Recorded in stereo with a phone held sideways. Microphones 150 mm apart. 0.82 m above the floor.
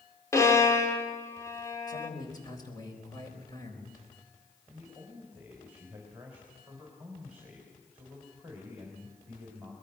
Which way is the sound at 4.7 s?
10° right (ahead or behind).